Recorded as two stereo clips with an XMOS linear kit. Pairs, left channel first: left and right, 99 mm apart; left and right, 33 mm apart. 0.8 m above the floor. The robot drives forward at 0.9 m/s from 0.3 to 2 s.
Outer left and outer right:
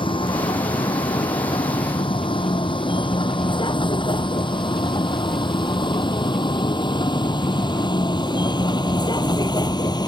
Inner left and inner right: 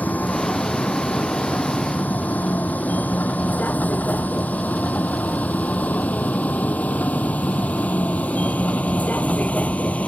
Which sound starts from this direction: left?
A vehicle, at 0.0 s.